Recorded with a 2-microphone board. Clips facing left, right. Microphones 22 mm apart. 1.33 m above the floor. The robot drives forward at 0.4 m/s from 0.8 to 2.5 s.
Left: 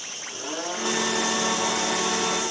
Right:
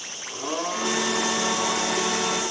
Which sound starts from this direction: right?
A blender, at 0.3 s.